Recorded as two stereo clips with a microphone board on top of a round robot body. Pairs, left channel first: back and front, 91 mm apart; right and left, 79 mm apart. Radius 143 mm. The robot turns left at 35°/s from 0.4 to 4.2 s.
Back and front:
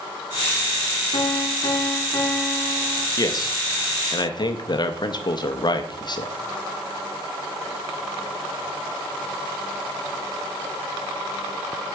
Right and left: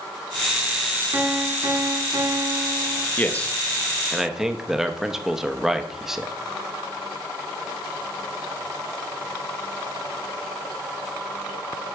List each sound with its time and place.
1.1 s a piano: 155° left, 1.6 m; by 3.1 s 90° left, 1.6 m
3.2 s a man speaking: 150° right, 0.9 m; by 6.3 s 175° left, 0.9 m